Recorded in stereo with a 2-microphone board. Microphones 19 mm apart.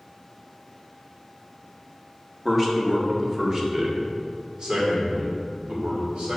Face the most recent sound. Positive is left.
turn(degrees=-50)  # may be behind; listen again after turning